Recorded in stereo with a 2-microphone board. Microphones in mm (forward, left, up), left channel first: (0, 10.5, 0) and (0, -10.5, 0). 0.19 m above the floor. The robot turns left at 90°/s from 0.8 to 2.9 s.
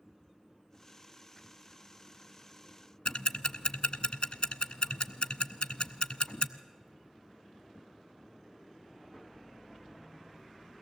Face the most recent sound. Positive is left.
turn(degrees=55)  # may be behind; listen again after turning